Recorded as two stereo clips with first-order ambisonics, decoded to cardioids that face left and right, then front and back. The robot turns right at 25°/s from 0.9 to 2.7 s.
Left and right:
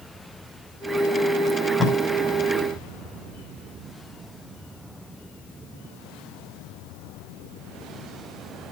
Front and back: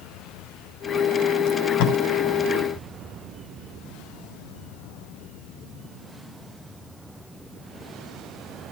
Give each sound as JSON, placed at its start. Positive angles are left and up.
{"t": 1.5, "sound": "tape being pulled", "azimuth_deg": -5, "distance_m": 4.5}